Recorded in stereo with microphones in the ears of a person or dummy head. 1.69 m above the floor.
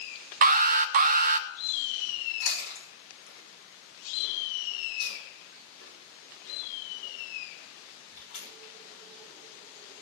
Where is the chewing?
65° left (ahead or behind), 5.5 m.